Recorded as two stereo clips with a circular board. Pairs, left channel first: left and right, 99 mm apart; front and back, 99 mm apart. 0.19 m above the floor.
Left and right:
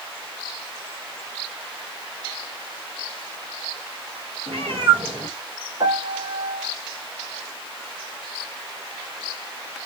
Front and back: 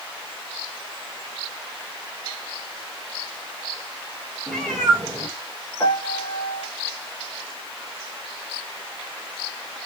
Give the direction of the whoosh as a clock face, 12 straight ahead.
I don't hear a whoosh.